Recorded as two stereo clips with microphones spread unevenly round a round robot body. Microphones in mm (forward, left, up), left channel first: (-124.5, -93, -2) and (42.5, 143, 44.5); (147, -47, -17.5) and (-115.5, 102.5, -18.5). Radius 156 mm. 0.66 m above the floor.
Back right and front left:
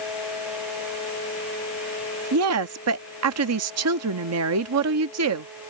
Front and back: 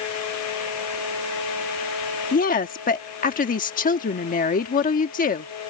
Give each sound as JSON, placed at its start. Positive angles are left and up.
{"t": 2.3, "sound": "a woman speaking", "azimuth_deg": 25}